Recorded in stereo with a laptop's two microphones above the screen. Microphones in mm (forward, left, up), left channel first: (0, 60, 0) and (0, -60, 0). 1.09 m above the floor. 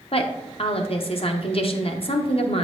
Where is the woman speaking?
50° left (ahead or behind), 0.8 m.